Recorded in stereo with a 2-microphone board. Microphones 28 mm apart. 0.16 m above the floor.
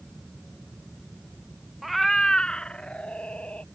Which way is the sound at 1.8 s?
5° right (ahead or behind).